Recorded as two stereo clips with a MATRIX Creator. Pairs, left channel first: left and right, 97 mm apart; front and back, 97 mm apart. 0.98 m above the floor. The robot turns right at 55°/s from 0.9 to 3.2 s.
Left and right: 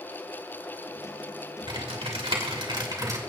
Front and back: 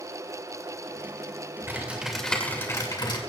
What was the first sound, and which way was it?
Typing on a keyboard, 115° right.